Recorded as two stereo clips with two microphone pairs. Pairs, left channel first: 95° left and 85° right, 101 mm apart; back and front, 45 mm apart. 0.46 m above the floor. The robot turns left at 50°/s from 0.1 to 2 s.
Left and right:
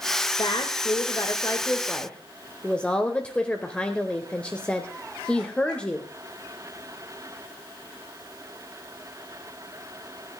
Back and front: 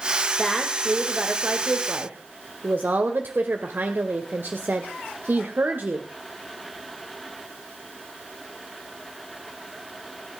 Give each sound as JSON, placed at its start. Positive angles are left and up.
{"t": 0.4, "sound": "a woman speaking", "azimuth_deg": 100, "distance_m": 1.3}